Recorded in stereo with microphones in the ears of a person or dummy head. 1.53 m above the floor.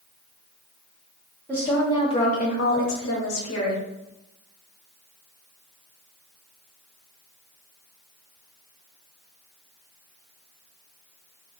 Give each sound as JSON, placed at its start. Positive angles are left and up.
{"t": 1.5, "sound": "a woman speaking", "side_deg": 15, "distance_m": 1.2}